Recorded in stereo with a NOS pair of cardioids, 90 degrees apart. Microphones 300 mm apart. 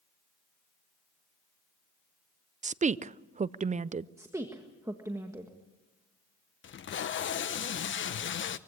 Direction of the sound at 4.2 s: 10° right.